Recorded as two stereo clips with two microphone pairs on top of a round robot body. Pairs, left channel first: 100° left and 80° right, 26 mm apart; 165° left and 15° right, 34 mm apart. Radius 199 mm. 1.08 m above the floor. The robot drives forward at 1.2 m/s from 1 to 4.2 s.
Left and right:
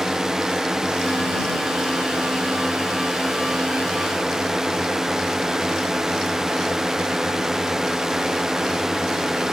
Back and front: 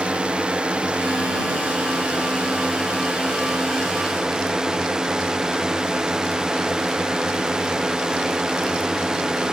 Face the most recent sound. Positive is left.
turn(degrees=-60)